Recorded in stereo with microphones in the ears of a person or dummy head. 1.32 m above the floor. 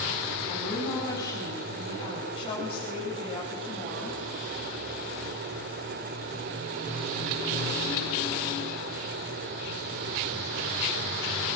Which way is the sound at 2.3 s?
30° left (ahead or behind).